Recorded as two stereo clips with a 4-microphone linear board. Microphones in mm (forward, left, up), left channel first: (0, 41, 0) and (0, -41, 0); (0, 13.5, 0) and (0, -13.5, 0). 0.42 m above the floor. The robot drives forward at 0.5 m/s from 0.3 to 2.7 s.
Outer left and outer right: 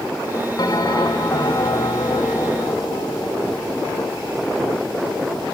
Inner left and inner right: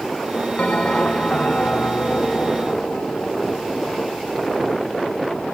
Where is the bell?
55° left (ahead or behind), 3 m; by 4.3 s 65° left (ahead or behind), 2.5 m.